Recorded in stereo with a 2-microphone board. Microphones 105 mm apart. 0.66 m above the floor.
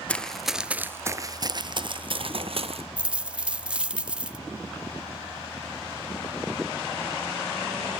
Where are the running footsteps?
10° left (ahead or behind), 0.8 m; by 2.9 s 65° right (ahead or behind), 1.4 m.